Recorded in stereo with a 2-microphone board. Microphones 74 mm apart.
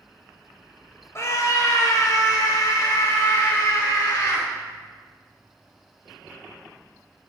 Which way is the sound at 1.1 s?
40° left (ahead or behind).